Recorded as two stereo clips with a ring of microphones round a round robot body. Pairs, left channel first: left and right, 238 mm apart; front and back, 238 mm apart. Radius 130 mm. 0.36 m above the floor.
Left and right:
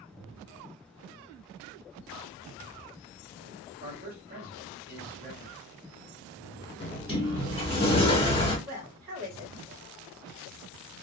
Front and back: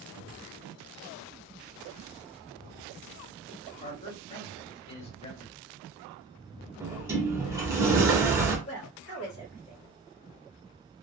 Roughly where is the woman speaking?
Ahead right.